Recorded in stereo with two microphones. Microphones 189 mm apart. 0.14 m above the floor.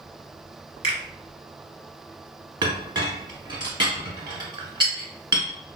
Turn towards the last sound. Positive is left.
turn(degrees=-25)  # may be behind; listen again after turning